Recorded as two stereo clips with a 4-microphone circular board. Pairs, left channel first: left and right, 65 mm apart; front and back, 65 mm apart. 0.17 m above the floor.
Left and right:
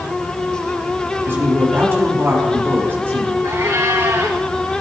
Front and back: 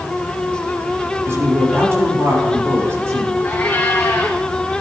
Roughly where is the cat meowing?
Right.